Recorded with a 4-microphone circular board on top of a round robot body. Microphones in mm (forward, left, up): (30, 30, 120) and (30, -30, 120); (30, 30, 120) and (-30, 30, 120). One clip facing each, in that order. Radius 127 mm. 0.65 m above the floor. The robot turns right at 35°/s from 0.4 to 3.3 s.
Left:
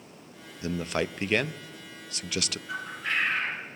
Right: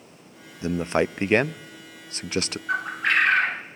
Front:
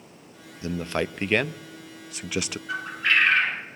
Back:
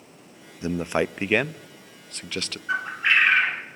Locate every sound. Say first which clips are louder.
0.6 s a man speaking: right 6 dB, back 3 dB; 135° right, 0.6 m; by 2.6 s 65° right, 0.6 m
2.7 s a bird: right 9 dB, back 2 dB; 125° right, 1.8 m; by 3.6 s 100° right, 1.8 m